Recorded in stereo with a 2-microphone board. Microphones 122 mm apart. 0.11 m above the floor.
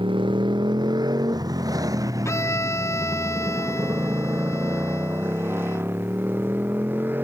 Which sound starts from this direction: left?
A violin, at 2.2 s.